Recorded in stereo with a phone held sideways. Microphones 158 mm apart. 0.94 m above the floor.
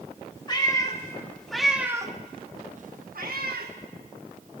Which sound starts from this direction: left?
A cat meowing, at 0.5 s.